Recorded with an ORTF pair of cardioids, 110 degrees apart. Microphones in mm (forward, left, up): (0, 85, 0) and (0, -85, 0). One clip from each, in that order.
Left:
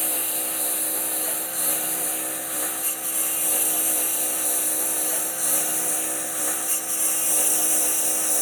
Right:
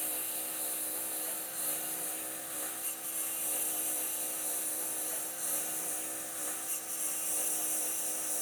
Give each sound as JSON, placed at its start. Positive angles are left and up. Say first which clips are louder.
{"t": 0.0, "sound": "a lawn mower", "louder": "left 11 dB", "azimuth_deg": 65}